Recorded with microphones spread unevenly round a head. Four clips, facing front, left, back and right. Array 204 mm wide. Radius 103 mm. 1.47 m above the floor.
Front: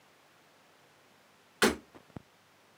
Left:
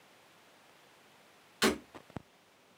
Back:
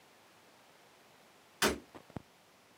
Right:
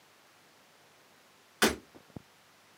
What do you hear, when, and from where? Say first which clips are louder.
1.6 s breaking glass: right 2 dB, front 5 dB; 50° right, 2.5 m